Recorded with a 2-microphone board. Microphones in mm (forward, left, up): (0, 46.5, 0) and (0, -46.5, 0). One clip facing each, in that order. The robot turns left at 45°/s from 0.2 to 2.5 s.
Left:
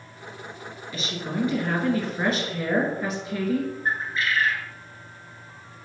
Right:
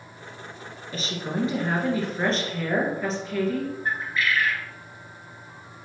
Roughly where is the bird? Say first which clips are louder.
Even; left.